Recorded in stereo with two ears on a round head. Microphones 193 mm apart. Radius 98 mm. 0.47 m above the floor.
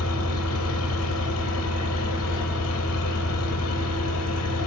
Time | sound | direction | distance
0.0 | an engine running | 85° left | 4.5 m